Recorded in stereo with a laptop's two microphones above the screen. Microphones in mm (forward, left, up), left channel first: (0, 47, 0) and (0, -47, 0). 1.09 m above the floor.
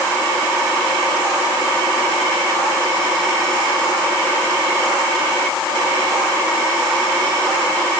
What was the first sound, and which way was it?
Only background noise.